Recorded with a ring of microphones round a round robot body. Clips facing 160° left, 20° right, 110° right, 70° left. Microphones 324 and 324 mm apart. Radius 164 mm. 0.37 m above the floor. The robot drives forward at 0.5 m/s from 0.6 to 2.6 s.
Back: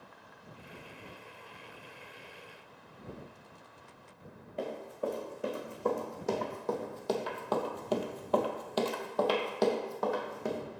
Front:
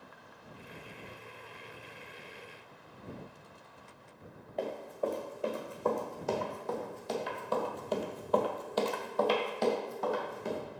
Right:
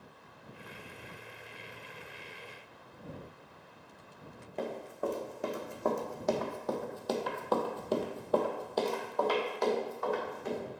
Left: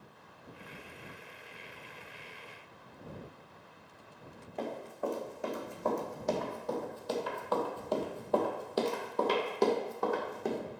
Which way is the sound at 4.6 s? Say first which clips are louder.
Front 1 dB, right 1 dB; 125° right.